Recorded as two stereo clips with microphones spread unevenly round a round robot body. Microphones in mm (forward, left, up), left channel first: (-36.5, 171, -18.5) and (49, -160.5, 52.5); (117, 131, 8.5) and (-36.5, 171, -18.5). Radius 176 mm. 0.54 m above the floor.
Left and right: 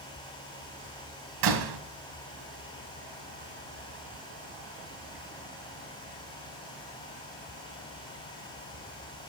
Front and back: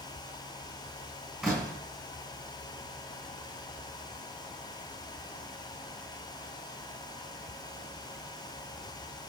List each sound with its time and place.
1.4 s a door slam: 105° right, 3 m